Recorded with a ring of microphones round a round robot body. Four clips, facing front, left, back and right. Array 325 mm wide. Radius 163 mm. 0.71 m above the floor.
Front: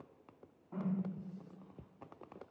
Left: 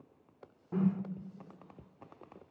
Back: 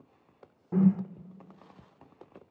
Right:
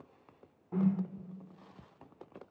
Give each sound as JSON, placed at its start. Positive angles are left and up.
{"t": 0.7, "sound": "a whoosh", "azimuth_deg": 170, "distance_m": 0.9}